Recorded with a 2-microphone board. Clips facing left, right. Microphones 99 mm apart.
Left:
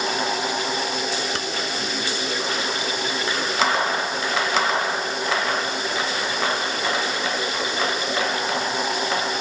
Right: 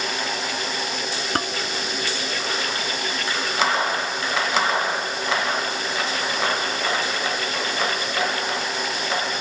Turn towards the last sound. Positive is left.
turn(degrees=-45)  # may be behind; listen again after turning